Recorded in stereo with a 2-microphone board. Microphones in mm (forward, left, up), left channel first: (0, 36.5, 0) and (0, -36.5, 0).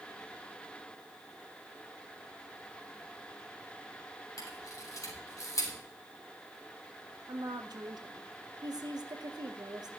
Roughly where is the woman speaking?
Right.